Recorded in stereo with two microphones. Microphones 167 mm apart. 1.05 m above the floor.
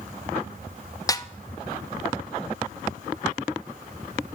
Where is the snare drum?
25° left (ahead or behind), 0.5 m.